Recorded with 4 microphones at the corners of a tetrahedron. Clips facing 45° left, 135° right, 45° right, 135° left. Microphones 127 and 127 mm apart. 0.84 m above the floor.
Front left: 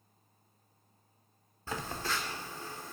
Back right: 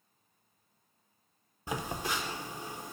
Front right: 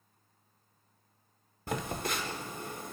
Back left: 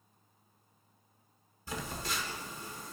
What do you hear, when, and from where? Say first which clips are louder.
1.7 s a phone buzzing: back right 2 dB, front right 5 dB; 65° right, 0.7 m